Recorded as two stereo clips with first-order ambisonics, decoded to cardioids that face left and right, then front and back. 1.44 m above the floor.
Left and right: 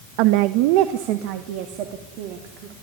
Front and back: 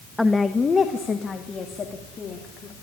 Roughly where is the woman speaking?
Right.